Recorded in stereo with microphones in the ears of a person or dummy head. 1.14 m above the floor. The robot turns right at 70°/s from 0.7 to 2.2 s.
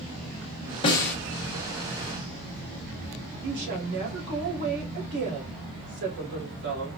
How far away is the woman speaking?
About 3 m.